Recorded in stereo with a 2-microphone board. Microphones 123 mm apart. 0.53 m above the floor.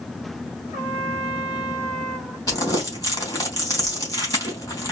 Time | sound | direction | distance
0.7 | a trumpet | 5° right (ahead or behind) | 2.5 m
2.5 | crumpling | 30° left (ahead or behind) | 3 m